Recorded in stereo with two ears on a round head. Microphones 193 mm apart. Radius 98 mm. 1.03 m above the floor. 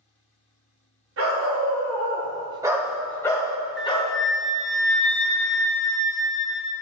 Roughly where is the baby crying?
I don't hear a baby crying.